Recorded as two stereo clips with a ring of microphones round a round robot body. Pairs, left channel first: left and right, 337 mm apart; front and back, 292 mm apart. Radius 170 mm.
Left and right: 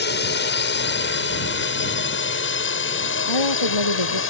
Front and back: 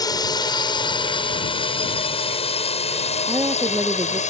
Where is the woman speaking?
100° left.